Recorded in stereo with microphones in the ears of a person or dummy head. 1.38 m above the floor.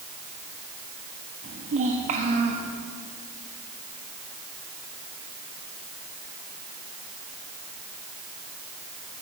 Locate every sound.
1.4 s a child speaking: 40° right (ahead or behind), 1.2 m